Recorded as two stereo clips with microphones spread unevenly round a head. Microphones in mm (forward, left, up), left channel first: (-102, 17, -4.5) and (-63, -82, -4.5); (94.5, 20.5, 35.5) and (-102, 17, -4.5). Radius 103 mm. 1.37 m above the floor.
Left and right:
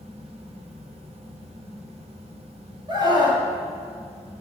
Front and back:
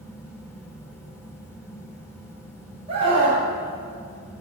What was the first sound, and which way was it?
A fan, 70° right.